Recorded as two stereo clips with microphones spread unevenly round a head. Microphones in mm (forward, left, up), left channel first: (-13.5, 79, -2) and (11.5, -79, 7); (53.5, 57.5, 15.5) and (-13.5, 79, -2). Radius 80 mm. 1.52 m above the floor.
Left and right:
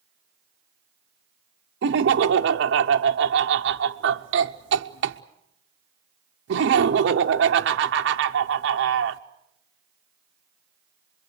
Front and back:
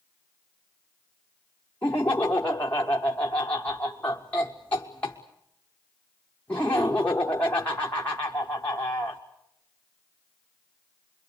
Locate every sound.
1.8 s laughter: 100° right, 0.7 m